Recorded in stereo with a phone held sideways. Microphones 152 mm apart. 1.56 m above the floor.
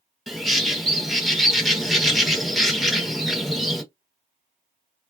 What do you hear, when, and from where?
0.3 s a bird: centre (ahead or behind), 1.0 m